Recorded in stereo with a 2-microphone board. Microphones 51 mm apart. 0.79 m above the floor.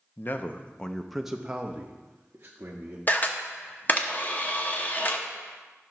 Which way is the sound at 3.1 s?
40° left (ahead or behind).